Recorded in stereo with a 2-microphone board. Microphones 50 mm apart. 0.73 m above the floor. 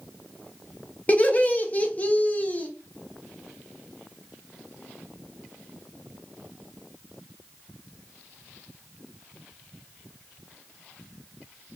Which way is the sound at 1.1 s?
30° left (ahead or behind).